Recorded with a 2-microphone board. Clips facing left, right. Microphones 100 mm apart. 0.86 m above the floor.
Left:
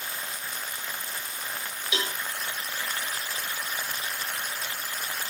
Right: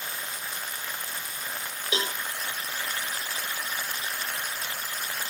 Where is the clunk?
I don't hear a clunk.